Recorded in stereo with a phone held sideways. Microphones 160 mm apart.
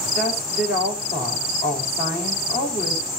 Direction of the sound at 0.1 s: 80° left.